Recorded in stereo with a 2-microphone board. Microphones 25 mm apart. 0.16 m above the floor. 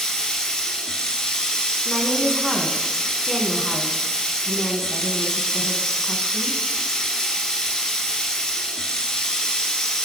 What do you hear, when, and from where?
0.0 s running water: 30° left (ahead or behind), 1.4 m
1.9 s a woman speaking: 15° left (ahead or behind), 1.0 m